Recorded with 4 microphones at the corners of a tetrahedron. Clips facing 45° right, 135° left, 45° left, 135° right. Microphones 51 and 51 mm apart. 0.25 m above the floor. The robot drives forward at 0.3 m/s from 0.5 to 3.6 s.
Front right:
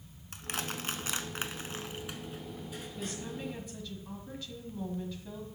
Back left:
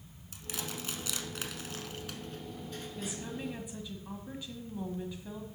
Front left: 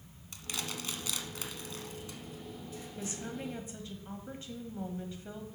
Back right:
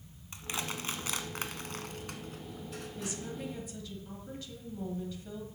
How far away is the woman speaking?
About 1.4 m.